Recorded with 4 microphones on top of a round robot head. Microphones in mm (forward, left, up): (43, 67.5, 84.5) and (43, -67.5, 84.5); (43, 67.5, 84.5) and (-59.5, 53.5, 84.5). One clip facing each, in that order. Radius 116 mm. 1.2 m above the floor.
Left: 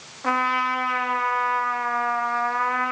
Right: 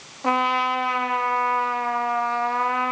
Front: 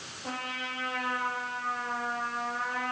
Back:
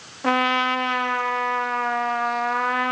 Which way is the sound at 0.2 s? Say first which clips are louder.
Right 2 dB, back 17 dB; 160° right.